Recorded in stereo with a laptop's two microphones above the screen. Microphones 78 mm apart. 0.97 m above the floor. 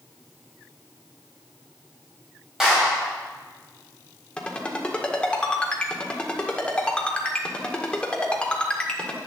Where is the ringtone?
15° left (ahead or behind), 1.6 m.